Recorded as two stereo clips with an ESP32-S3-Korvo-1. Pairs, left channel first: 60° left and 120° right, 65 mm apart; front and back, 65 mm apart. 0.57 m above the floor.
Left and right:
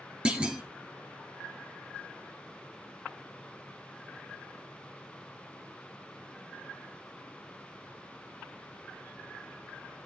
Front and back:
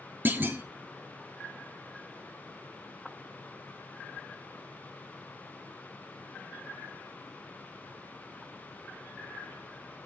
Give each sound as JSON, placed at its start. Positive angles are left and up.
{"t": 0.2, "sound": "a clunk", "azimuth_deg": 180, "distance_m": 0.9}